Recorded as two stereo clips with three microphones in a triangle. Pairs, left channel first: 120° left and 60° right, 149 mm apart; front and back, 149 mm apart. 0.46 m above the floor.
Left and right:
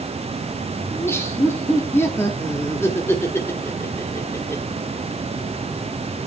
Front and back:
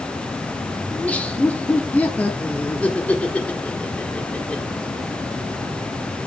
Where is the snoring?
No snoring in this recording.